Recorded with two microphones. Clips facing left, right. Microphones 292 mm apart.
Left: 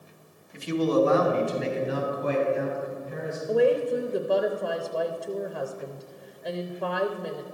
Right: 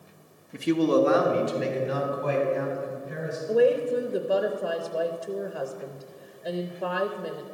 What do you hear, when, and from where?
0.5 s a man speaking: 60° right (ahead or behind), 0.9 m; by 3.4 s 85° right, 4 m
3.5 s a woman speaking: centre (ahead or behind), 0.5 m